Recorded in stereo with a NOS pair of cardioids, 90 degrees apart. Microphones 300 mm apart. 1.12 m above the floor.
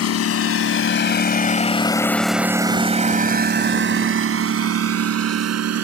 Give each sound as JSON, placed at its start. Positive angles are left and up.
{"t": 0.0, "sound": "a lawn mower", "azimuth_deg": 60}